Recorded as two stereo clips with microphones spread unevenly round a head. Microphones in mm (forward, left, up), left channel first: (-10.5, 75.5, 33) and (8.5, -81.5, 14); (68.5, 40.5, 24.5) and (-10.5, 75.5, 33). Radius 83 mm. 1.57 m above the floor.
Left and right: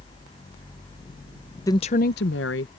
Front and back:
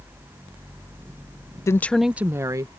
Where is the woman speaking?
30° left; by 2.7 s 110° left.